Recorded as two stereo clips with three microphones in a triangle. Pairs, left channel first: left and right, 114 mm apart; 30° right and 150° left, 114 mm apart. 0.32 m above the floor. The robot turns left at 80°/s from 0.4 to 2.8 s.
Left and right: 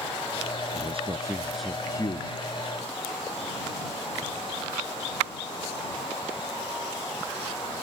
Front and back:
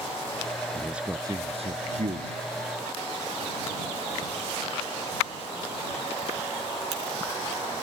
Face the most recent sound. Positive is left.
turn(degrees=85)